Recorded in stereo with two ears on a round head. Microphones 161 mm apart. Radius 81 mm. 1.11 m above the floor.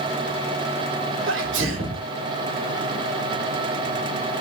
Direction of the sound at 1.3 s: 75° right (ahead or behind).